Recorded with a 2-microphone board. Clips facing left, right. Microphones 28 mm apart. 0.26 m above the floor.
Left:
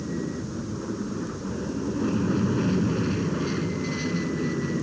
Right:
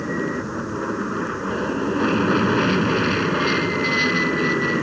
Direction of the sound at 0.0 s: 60° right (ahead or behind).